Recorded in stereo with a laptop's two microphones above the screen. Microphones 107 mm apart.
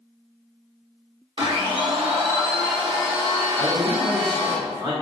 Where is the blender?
55° right (ahead or behind), 0.9 m.